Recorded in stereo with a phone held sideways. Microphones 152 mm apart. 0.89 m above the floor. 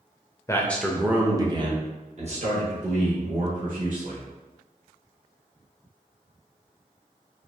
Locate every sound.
0.5 s a man speaking: 20° left (ahead or behind), 0.6 m; by 4.2 s 65° right (ahead or behind), 2 m